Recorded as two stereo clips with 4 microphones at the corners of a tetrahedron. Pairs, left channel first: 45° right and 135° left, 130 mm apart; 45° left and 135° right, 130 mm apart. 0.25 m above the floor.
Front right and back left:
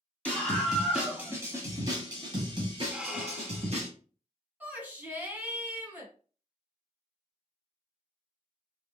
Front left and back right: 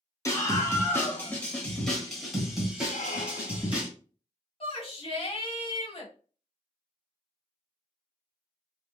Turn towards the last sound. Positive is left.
turn(degrees=65)